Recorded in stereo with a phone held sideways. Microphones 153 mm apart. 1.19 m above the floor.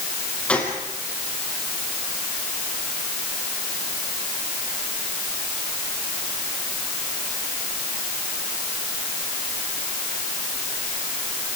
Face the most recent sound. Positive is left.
turn(degrees=10)  # may be behind; listen again after turning